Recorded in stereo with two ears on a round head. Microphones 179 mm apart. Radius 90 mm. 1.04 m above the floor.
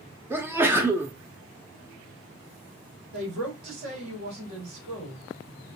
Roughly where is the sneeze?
Centre.